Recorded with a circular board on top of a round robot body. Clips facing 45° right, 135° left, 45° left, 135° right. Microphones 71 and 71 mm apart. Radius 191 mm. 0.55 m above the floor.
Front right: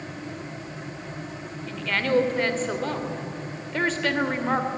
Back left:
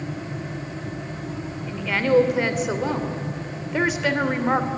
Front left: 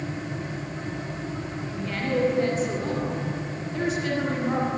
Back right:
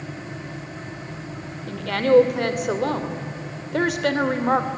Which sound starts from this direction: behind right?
A woman speaking, at 1.7 s.